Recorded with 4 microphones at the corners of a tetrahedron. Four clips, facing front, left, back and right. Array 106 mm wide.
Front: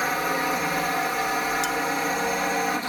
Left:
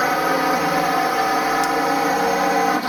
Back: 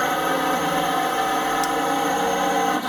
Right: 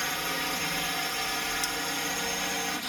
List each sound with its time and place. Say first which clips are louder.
0.0 s a drone: left 15 dB, back 4 dB; 110° left
1.6 s cutlery clinking: left 15 dB, back 4 dB; 75° left